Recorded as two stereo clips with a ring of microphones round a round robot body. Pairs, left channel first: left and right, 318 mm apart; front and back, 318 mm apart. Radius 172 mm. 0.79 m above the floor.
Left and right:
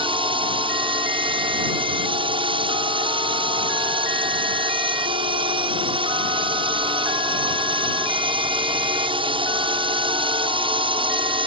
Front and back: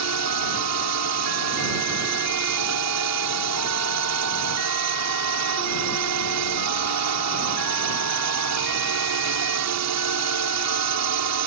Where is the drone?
160° right.